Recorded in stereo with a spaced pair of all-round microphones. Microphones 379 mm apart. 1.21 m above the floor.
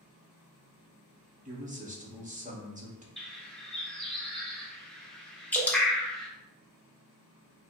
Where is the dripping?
5° left (ahead or behind), 0.8 m.